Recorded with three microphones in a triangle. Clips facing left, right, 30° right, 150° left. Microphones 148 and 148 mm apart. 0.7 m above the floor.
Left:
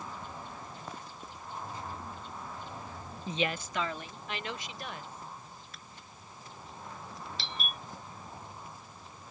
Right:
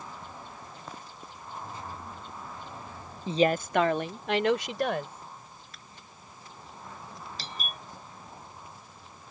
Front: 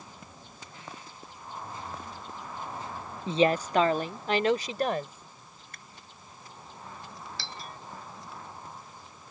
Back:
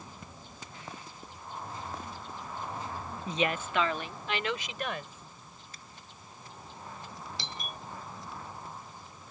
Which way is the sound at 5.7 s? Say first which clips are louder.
Even, even; straight ahead.